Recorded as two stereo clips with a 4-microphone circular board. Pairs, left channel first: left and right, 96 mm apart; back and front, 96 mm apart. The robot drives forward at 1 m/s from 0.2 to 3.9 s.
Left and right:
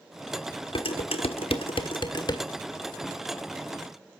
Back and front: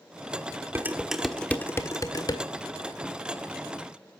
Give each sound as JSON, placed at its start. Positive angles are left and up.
{"t": 0.8, "sound": "dishes clattering", "azimuth_deg": 70, "distance_m": 1.2}